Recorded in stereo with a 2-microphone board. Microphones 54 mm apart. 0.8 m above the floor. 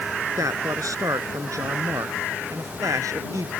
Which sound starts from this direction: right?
A man speaking, at 0.4 s.